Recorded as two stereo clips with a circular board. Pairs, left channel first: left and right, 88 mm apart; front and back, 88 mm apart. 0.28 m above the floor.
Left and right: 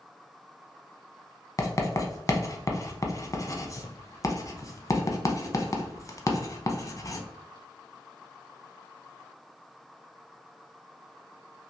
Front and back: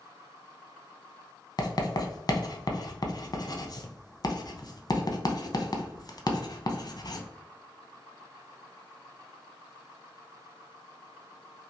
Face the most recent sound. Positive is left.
turn(degrees=40)